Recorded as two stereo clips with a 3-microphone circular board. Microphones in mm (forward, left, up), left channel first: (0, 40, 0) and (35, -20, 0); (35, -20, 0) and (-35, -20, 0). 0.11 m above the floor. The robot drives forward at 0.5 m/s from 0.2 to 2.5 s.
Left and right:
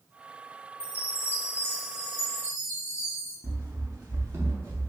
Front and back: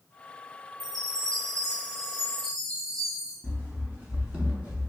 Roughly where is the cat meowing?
I don't hear a cat meowing.